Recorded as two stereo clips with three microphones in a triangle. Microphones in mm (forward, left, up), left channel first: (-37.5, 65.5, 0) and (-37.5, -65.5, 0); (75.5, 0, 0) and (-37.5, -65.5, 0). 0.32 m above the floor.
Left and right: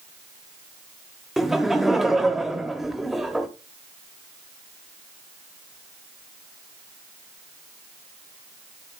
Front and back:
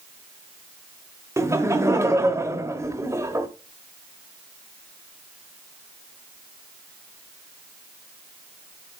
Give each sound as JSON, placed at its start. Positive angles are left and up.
{"t": 1.4, "sound": "laughter", "azimuth_deg": -175, "distance_m": 1.1}